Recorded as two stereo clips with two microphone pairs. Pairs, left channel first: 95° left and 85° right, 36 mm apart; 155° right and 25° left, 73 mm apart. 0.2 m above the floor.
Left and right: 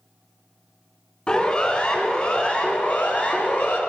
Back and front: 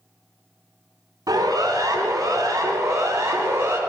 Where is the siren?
35° left, 2.5 m; by 3.8 s 75° left, 2.5 m.